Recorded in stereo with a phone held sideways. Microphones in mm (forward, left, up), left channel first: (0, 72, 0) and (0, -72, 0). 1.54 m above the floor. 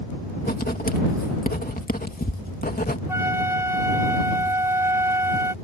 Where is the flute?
20° right (ahead or behind).